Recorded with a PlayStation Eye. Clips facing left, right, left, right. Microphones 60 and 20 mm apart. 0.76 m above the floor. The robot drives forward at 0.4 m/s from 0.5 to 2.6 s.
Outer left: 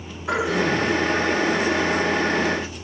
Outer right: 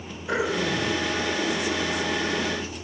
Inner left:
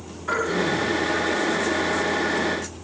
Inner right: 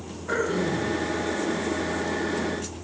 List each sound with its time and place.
0.3 s throat clearing: 85° left, 4 m